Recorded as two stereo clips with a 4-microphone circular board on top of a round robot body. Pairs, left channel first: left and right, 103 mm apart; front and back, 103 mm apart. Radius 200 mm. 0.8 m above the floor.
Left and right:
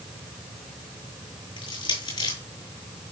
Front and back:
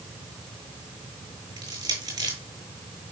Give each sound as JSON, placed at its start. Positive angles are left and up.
{"t": 1.6, "sound": "crushing", "azimuth_deg": 125, "distance_m": 8.5}